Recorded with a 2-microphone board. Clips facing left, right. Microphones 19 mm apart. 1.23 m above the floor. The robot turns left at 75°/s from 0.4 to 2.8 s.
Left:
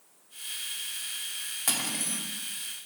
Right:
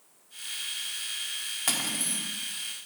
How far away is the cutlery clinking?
About 1.5 m.